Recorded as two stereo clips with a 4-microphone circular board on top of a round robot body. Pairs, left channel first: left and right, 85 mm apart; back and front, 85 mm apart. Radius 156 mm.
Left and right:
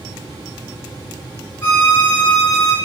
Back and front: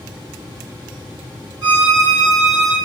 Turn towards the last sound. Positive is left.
turn(degrees=25)